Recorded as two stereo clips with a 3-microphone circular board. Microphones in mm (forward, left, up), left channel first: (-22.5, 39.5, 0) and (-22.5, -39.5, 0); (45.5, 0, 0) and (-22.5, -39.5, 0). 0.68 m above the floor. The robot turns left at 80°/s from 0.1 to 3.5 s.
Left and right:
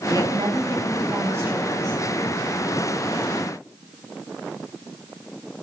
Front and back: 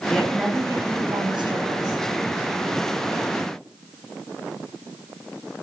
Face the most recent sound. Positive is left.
turn(degrees=40)